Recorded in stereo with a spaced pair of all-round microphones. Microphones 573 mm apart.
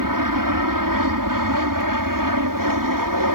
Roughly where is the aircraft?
Right.